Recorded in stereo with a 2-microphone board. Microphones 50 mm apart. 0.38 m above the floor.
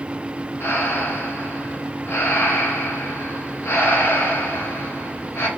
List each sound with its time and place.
0.6 s breathing: 50° left (ahead or behind), 1.3 m